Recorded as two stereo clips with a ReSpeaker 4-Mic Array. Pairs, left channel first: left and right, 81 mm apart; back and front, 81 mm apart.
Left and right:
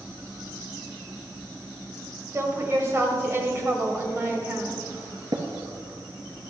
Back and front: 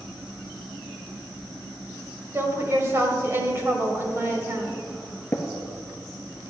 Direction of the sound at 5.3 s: 120° right.